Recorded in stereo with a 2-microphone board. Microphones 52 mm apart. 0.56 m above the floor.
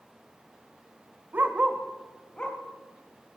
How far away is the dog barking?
About 0.6 m.